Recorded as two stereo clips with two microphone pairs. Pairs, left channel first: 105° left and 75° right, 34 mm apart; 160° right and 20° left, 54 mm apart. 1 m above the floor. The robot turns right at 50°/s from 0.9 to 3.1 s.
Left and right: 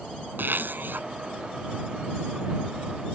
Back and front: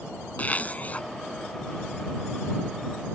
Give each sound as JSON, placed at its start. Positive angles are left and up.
{"t": 0.4, "sound": "a zipper", "azimuth_deg": -95}